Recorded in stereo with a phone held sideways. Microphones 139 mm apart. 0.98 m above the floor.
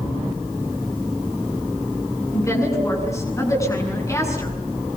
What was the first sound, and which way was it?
A woman speaking, 20° left (ahead or behind).